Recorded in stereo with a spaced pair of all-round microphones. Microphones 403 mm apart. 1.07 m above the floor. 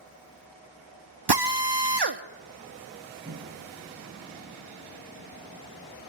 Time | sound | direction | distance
1.3 | a drill | 75° right (ahead or behind) | 1.0 m
3.2 | a microwave | 35° right (ahead or behind) | 0.9 m